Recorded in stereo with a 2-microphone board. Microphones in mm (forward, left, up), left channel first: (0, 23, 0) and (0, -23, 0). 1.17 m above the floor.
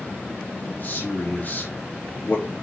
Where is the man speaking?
40° left (ahead or behind), 2 m.